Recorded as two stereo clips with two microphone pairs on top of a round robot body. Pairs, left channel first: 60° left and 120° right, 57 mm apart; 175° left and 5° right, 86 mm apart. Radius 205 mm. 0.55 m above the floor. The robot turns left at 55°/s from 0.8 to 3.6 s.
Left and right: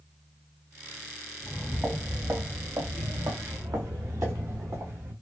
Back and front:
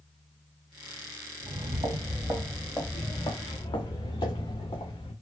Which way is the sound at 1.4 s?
10° right.